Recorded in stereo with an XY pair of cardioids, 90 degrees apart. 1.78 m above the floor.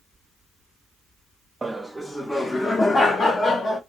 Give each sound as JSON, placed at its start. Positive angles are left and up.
{"t": 1.6, "sound": "laughter", "azimuth_deg": -30, "distance_m": 0.6}